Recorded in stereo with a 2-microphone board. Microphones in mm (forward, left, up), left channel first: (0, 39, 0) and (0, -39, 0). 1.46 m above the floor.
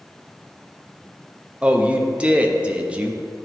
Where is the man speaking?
15° right (ahead or behind), 0.5 m.